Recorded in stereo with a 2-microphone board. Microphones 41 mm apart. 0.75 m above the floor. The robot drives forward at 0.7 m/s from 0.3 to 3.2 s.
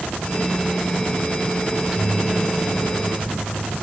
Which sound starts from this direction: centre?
A microwave, at 1.7 s.